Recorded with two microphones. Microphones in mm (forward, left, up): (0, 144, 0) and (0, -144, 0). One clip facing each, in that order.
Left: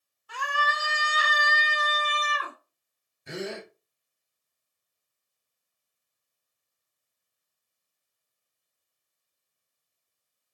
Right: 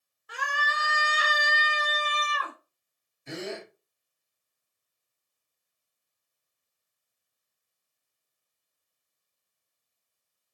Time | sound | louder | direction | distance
0.3 | a scream | left 3 dB | 20° right (ahead or behind) | 1.2 m
3.3 | a gasp | left 1 dB | 20° left (ahead or behind) | 1.9 m